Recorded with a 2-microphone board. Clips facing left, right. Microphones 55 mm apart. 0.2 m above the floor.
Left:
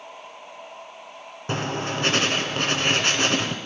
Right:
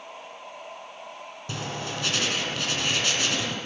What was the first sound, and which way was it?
Writing, 45° left (ahead or behind).